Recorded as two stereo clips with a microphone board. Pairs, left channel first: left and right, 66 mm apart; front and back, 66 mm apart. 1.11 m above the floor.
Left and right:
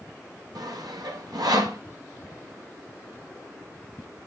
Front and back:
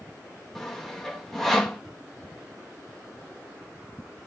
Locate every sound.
0.6 s sawing: 85° right, 1.1 m